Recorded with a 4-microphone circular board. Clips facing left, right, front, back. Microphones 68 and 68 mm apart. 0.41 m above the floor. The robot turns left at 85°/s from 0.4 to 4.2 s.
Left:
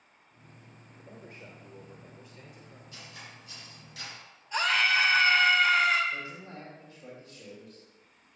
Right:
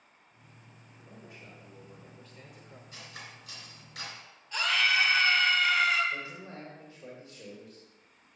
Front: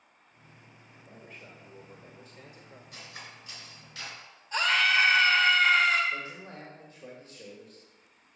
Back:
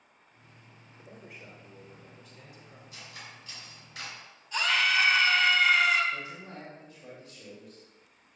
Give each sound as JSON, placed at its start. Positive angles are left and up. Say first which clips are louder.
{"t": 1.0, "sound": "a man speaking", "louder": "left 3 dB, back 1 dB", "azimuth_deg": 130, "distance_m": 1.0}
{"t": 2.9, "sound": "cutlery clinking", "louder": "right 1 dB, front 1 dB", "azimuth_deg": -20, "distance_m": 3.5}
{"t": 4.5, "sound": "a scream", "louder": "left 2 dB, front 2 dB", "azimuth_deg": 25, "distance_m": 1.1}
{"t": 6.1, "sound": "a man speaking", "louder": "even, front 1 dB", "azimuth_deg": -35, "distance_m": 1.9}